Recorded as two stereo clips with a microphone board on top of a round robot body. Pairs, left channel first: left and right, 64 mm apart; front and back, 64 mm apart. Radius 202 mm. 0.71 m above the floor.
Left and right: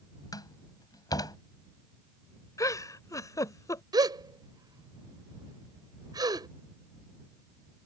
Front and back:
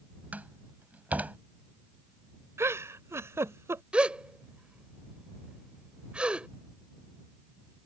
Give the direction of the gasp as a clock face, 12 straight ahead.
4 o'clock.